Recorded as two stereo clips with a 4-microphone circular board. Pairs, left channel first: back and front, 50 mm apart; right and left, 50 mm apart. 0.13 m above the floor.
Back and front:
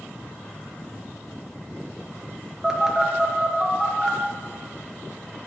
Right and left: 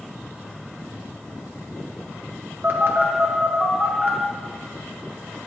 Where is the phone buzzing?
75° left, 1.8 m.